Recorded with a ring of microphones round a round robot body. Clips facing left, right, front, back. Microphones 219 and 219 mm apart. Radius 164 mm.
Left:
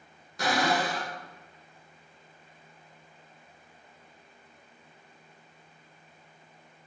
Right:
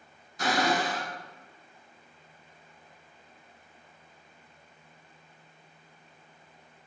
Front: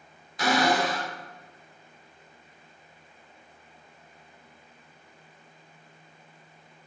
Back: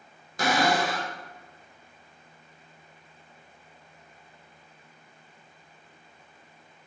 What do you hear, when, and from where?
0.4 s a cupboard door: 130° left, 1.3 m